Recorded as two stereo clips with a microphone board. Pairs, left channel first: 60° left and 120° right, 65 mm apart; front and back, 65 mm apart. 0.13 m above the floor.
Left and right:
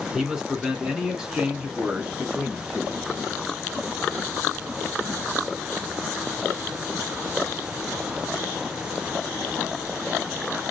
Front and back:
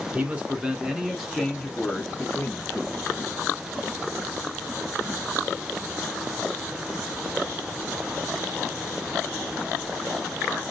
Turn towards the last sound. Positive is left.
turn(degrees=-55)